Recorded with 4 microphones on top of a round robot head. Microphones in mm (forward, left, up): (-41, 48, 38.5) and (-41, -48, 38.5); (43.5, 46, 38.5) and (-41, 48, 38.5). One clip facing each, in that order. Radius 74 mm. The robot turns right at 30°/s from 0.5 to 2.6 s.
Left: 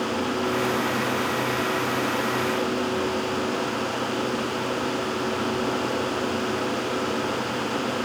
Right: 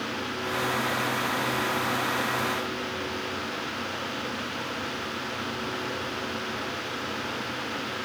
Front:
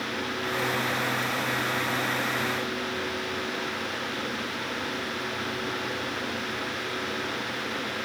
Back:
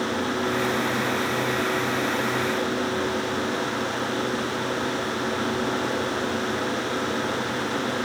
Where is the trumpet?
I don't hear a trumpet.